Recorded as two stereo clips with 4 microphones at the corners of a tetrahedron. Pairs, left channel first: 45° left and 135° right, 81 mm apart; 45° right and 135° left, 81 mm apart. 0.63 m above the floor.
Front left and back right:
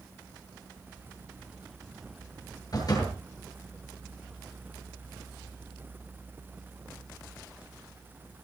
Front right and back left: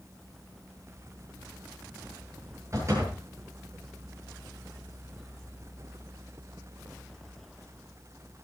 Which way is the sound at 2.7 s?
85° left.